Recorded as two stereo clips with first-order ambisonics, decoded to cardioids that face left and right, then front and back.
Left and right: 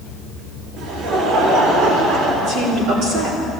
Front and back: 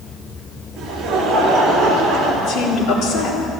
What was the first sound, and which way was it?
Laughter, 120° right.